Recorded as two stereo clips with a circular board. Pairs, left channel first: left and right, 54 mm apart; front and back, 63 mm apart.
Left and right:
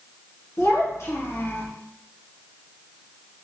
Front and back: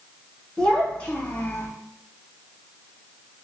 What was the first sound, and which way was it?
A child speaking, 75° left.